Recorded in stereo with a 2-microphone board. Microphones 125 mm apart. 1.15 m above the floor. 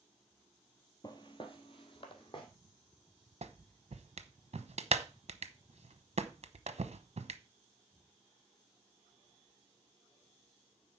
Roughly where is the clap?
Right.